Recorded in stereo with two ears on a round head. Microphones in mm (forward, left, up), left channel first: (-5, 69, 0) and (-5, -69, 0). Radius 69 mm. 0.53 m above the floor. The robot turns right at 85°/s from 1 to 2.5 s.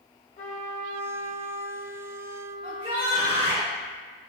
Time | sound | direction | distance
0.4 | a trumpet | 50° left | 1.1 m
2.6 | a shout | 30° right (ahead or behind) | 0.8 m